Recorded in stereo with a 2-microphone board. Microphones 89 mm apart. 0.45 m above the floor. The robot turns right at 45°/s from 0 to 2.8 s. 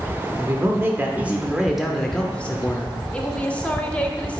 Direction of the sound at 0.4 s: 70° right.